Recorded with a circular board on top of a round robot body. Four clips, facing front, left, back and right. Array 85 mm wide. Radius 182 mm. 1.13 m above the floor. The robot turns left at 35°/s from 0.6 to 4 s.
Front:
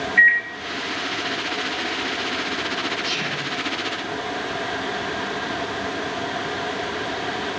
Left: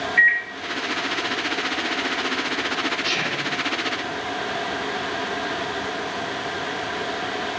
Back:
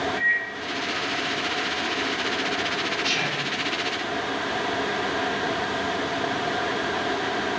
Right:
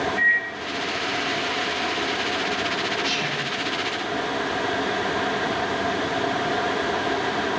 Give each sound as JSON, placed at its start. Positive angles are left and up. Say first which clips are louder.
{"t": 0.2, "sound": "a microwave", "louder": "left 7 dB, front 8 dB", "azimuth_deg": 35, "distance_m": 0.6}
{"t": 3.0, "sound": "whispering", "louder": "left 1 dB, even", "azimuth_deg": 135, "distance_m": 1.6}